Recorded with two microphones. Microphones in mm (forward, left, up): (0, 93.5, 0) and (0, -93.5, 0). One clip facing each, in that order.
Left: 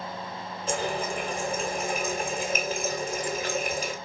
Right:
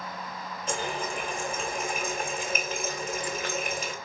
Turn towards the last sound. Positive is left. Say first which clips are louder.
# left 3 dB
turn(degrees=35)  # may be behind; listen again after turning